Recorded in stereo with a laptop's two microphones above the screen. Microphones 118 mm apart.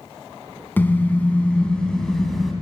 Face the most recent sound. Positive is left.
turn(degrees=0)  # may be behind; listen again after turning